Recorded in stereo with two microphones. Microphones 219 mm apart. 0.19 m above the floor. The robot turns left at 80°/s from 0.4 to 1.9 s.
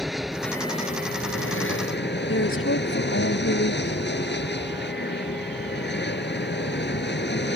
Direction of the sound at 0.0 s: Straight behind.